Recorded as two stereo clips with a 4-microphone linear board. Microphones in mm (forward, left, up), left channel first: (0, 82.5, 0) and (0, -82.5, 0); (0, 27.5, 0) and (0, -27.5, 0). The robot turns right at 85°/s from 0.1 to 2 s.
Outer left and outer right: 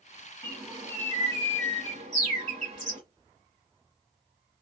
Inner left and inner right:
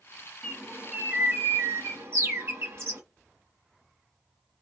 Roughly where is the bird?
Behind.